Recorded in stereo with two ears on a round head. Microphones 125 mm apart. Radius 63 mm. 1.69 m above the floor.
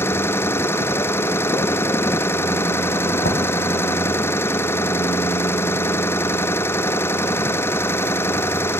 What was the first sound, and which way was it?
An engine running, 20° left (ahead or behind).